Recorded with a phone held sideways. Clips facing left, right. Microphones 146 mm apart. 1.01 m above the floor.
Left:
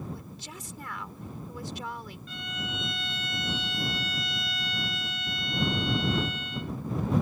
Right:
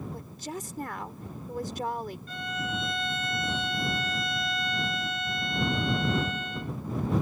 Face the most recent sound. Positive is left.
turn(degrees=-50)  # may be behind; listen again after turning